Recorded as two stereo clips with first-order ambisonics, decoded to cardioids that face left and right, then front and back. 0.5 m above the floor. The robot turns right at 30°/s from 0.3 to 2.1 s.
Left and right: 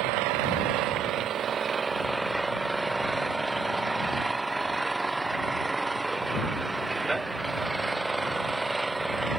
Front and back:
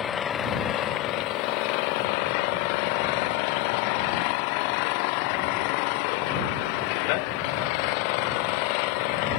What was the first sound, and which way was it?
An engine running, 65° right.